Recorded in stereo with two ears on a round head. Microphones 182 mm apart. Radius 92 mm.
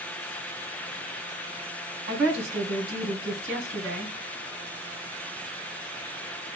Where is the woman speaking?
55° right (ahead or behind), 2.5 m.